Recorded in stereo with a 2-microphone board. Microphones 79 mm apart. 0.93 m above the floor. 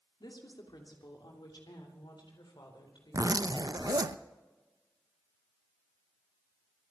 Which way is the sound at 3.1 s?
50° right (ahead or behind).